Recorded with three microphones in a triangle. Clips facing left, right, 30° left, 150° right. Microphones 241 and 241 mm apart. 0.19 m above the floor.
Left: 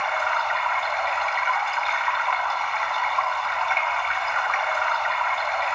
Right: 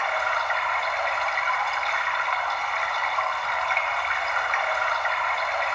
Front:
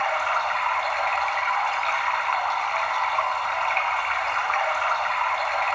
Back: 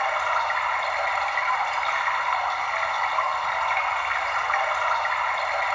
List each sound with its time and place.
0.0 s running water: 130° right, 1.4 m